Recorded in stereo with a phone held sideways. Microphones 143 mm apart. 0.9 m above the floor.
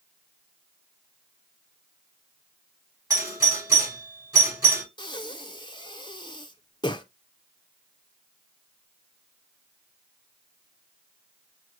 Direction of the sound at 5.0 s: 30° left (ahead or behind).